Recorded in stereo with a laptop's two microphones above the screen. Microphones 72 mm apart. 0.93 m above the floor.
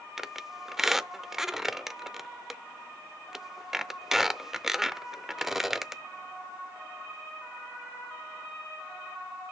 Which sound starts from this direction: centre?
A squeak, at 0.2 s.